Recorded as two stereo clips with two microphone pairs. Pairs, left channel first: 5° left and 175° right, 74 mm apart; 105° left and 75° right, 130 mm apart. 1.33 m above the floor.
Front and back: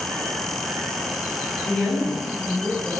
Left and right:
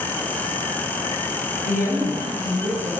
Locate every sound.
1.6 s a woman speaking: 65° right, 6 m